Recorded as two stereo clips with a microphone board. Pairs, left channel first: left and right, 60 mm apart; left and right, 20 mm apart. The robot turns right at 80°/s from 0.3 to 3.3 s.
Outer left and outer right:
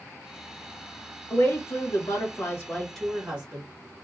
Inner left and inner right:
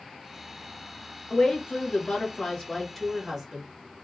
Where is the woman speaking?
40° left, 1.8 m; by 3.7 s 160° right, 1.8 m.